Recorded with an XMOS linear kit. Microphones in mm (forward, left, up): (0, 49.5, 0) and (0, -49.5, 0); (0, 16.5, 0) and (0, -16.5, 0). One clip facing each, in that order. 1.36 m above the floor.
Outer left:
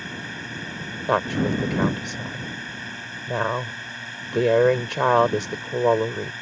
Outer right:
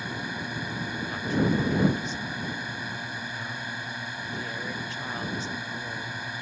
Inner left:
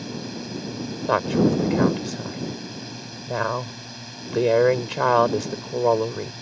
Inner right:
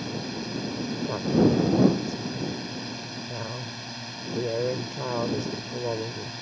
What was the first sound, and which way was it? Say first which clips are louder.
A drone: outer right 1 dB, even; 15° right (ahead or behind).